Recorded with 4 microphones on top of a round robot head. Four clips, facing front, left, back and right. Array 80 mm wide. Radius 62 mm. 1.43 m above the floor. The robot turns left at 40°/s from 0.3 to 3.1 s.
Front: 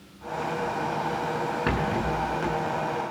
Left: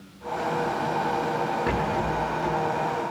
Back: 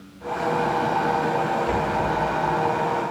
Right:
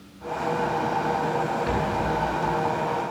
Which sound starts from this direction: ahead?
A rattle, at 1.7 s.